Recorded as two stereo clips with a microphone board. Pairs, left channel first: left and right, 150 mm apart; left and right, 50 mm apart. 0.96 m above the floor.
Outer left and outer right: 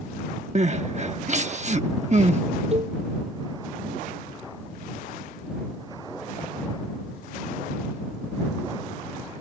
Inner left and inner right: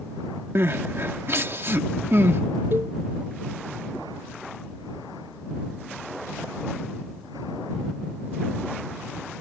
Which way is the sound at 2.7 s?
45° right (ahead or behind).